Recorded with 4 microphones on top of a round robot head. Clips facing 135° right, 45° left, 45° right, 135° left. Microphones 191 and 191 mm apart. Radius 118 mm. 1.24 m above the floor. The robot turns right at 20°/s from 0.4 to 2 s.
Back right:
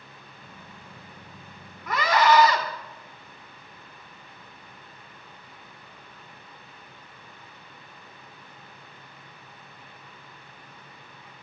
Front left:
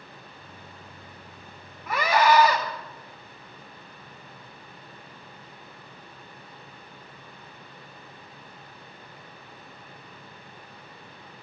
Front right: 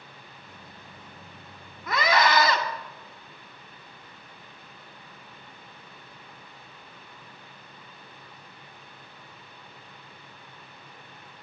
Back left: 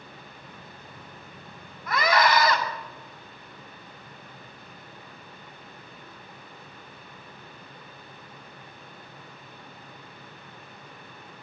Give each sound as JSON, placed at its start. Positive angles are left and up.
{"t": 1.9, "sound": "a scream", "azimuth_deg": -40, "distance_m": 2.0}